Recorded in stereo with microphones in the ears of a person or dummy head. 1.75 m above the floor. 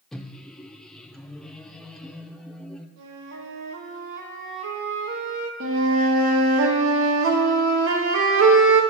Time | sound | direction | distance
0.1 | a microwave | centre (ahead or behind) | 0.6 m
3.0 | a flute | 65° right (ahead or behind) | 1.3 m
5.6 | a flute | 70° right (ahead or behind) | 1.4 m